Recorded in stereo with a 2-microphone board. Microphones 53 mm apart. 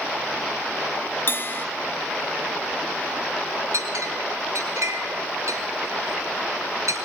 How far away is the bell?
About 0.7 m.